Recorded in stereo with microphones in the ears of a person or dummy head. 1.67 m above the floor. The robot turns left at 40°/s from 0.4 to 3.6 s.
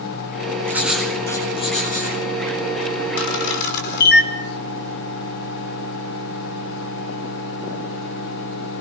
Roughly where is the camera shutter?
Left.